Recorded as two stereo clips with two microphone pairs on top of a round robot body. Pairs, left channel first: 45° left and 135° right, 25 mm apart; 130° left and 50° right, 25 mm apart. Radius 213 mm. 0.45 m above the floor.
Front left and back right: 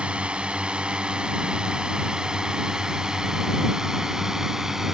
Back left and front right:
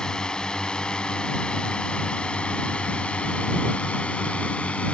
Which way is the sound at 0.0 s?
175° right.